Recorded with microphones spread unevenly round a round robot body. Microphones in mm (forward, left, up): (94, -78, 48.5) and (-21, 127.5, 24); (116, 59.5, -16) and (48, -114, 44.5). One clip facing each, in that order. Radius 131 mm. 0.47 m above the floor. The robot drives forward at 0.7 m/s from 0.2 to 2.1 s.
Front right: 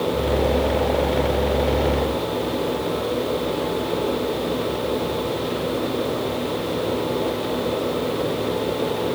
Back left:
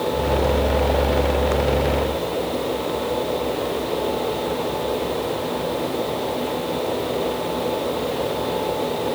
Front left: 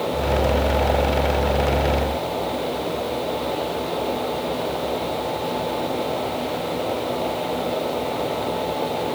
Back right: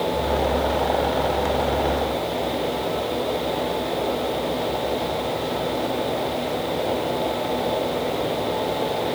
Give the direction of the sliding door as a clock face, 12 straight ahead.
I don't hear a sliding door.